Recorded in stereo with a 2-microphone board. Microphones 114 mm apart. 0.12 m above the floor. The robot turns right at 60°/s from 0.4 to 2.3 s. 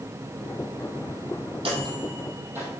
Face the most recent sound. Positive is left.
turn(degrees=-20)  # may be behind; listen again after turning